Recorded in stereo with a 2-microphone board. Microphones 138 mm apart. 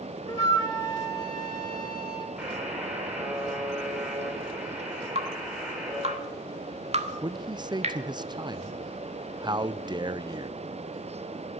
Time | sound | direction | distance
0.3 | a flute | 30° left (ahead or behind) | 2.5 m
2.4 | a buzzer | 10° right (ahead or behind) | 7.5 m
5.2 | dripping | 50° right (ahead or behind) | 1.6 m
7.2 | a man speaking | 30° right (ahead or behind) | 0.6 m